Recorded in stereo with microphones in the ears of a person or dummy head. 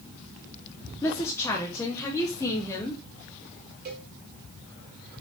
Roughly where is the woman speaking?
Centre.